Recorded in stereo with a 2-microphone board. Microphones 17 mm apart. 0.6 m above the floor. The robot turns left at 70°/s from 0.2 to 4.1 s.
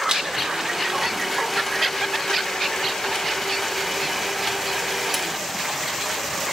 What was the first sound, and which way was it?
A blender, 90° right.